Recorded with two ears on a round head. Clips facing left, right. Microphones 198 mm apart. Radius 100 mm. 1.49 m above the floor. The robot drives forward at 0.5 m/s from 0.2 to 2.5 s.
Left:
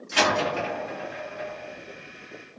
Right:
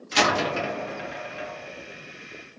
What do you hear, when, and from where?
0.1 s a door slam: 45° right (ahead or behind), 1.3 m; by 2.6 s 60° right (ahead or behind), 1.1 m